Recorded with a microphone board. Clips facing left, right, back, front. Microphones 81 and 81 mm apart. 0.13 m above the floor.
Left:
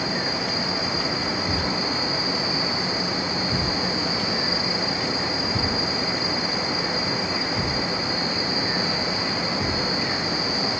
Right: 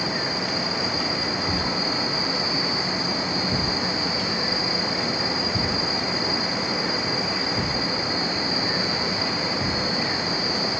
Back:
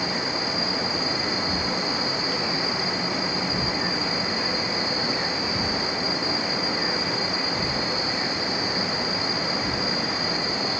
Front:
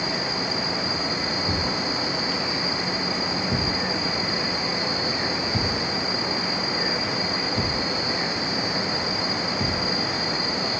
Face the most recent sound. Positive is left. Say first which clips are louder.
# even, even
turn(degrees=-10)